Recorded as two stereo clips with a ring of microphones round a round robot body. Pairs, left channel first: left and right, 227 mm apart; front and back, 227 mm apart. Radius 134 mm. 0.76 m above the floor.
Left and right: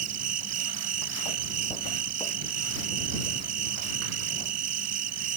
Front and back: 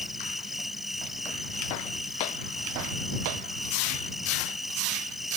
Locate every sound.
0.0 s an insect: 90° right